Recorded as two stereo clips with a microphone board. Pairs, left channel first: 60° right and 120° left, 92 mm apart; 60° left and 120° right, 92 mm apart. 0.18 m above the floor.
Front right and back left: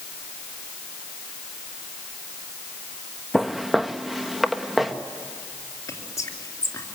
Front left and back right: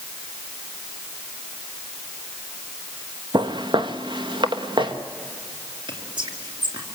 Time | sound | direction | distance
3.3 | footsteps | 155° right | 0.8 m
5.9 | whispering | 105° right | 3 m